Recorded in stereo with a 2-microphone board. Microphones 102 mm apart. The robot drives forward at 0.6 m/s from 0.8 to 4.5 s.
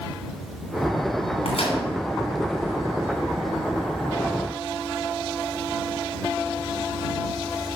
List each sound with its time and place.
1.4 s a microwave: 70° left (ahead or behind), 3 m